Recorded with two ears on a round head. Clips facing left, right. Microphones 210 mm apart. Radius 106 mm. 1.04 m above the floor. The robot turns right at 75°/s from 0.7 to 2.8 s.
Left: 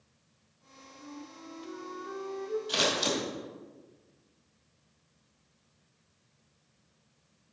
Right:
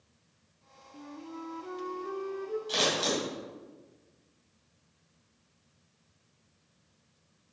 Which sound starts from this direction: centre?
Scissors, at 2.7 s.